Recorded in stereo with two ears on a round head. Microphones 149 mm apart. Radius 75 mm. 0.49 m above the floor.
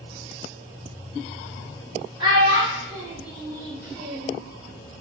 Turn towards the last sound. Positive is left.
turn(degrees=-30)  # may be behind; listen again after turning